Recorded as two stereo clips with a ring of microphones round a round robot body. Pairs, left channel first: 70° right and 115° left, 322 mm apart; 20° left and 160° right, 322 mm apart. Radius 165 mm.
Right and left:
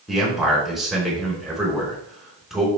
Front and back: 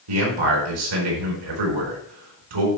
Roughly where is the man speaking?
Behind.